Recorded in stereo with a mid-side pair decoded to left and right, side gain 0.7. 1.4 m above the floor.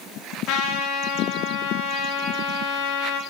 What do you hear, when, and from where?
0.5 s a trumpet: 60° left, 3.5 m